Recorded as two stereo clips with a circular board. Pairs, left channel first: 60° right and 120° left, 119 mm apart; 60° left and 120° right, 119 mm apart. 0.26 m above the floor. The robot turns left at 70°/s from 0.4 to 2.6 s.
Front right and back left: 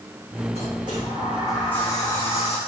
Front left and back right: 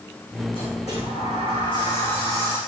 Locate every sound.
0.5 s a sliding door: 100° left, 4.5 m; by 2.6 s 45° right, 4.5 m